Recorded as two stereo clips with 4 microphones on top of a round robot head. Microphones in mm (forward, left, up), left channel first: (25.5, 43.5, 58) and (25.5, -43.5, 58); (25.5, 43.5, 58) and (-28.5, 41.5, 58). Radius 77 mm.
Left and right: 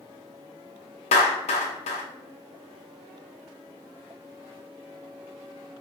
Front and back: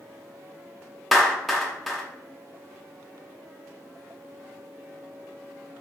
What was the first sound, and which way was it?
A clap, 90° left.